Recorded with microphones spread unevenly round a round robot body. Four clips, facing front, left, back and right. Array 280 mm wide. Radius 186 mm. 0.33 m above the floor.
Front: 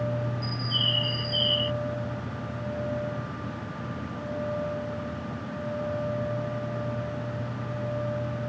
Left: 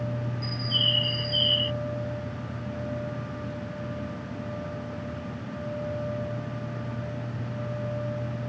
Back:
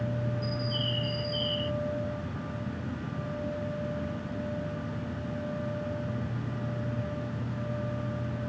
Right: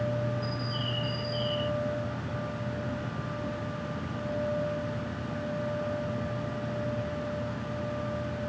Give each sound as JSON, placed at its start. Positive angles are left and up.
{"t": 0.4, "sound": "a bird", "azimuth_deg": 90}